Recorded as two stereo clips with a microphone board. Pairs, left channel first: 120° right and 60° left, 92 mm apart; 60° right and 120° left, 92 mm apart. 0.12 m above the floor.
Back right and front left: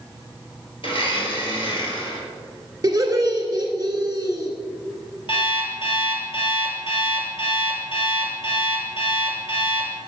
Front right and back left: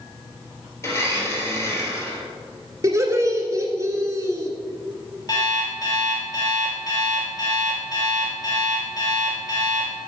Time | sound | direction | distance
0.8 | a blender | 115° right | 1.8 m
2.8 | laughter | 85° left | 1.6 m
5.3 | an alarm clock | 105° right | 1.9 m